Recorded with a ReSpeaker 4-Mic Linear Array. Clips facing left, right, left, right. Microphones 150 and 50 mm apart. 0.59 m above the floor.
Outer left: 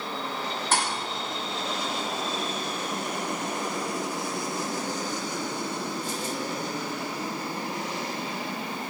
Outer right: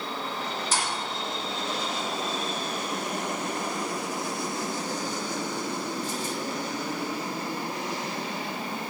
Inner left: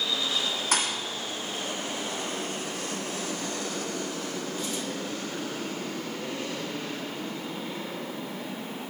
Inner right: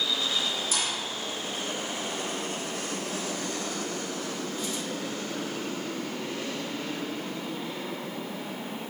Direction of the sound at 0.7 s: 60° left (ahead or behind).